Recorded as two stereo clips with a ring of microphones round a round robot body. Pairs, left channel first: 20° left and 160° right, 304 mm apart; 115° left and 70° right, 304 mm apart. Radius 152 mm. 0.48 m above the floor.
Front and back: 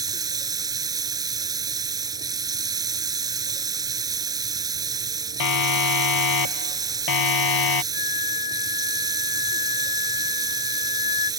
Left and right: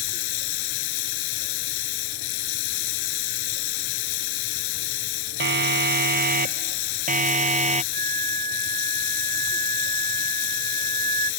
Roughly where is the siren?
Ahead.